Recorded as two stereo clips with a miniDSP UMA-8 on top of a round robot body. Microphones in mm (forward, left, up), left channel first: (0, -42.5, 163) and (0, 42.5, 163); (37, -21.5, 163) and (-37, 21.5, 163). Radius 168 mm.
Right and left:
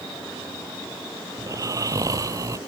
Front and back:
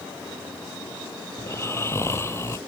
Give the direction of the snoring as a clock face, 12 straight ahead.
11 o'clock.